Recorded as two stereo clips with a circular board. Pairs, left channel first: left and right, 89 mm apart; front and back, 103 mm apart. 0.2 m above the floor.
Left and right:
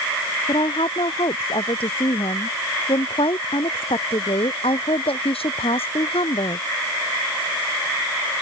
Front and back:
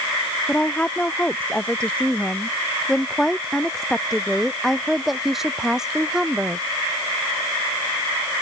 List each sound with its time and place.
0.5 s a woman speaking: 75° left; by 6.7 s 100° left